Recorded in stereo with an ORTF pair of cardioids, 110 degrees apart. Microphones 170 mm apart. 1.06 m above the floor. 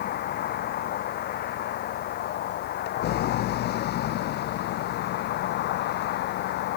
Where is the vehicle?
70° left; by 6.8 s 80° left.